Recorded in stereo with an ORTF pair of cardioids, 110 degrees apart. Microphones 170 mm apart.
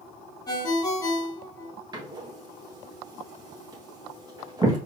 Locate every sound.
0.5 s a ringtone: 20° left, 1.6 m
1.9 s a door slam: 25° right, 1.4 m